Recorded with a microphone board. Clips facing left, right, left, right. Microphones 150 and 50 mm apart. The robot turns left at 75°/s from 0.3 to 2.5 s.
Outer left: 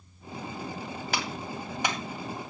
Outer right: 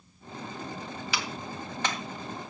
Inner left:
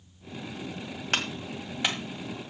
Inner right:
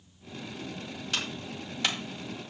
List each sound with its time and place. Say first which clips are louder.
1.1 s a clap: outer left 3 dB, inner left 4 dB; 50° left (ahead or behind), 1.8 m; by 2.0 s 5° left (ahead or behind), 1.8 m